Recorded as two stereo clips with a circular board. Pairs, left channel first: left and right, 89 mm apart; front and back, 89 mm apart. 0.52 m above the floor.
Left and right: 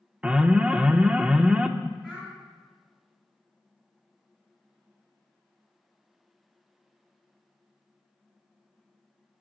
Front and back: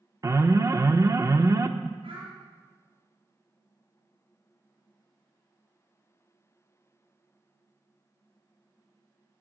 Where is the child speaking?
175° right, 5 m.